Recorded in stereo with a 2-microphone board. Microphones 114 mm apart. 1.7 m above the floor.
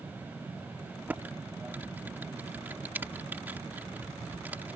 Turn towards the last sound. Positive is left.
turn(degrees=-15)  # may be behind; listen again after turning